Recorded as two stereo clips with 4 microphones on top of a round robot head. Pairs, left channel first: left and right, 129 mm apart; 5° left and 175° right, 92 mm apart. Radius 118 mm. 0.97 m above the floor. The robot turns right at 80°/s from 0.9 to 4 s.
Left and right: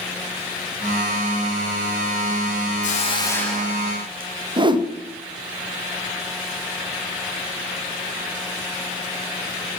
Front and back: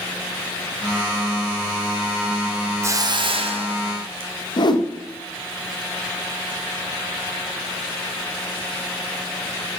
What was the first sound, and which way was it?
A hiss, 125° left.